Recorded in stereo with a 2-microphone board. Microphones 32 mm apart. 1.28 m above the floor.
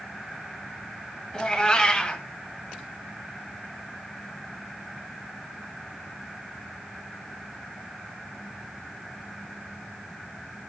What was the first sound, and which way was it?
A cat meowing, 25° left (ahead or behind).